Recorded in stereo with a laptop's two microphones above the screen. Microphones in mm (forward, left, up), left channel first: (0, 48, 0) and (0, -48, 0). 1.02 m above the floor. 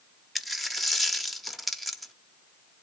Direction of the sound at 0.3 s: Centre (ahead or behind).